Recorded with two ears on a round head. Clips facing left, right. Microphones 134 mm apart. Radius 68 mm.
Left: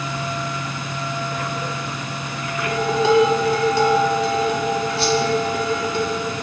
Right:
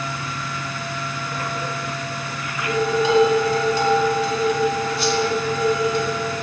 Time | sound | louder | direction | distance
2.6 | dishes clattering | even | 55° left (ahead or behind) | 2.5 m
5.0 | a whoosh | left 2 dB | 25° left (ahead or behind) | 1.1 m